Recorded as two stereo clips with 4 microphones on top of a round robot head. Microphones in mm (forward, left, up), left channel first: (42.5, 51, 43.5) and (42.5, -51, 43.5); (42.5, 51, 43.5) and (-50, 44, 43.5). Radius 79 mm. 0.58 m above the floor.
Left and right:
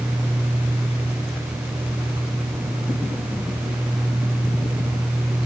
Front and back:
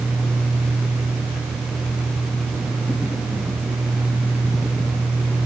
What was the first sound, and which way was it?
Only background noise.